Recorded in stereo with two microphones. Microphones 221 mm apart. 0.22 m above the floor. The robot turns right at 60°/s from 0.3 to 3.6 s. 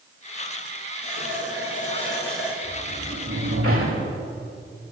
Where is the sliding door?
160° right, 9 m; by 4.1 s 100° right, 9 m.